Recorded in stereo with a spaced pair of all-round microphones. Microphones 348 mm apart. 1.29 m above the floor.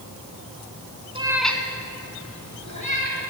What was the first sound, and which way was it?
A cat meowing, 15° right (ahead or behind).